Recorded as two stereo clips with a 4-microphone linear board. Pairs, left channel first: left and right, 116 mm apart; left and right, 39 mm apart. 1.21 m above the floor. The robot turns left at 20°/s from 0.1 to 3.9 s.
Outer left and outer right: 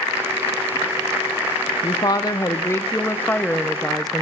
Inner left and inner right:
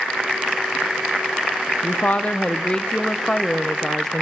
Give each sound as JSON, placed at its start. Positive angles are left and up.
{"t": 1.8, "sound": "a woman speaking", "azimuth_deg": 45, "distance_m": 0.6}